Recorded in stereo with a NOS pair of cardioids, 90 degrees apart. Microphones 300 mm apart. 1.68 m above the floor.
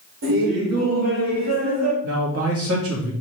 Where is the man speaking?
50° right, 3 m.